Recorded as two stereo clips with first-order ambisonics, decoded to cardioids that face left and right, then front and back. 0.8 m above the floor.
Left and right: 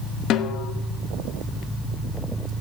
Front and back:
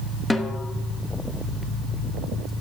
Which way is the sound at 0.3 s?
85° left.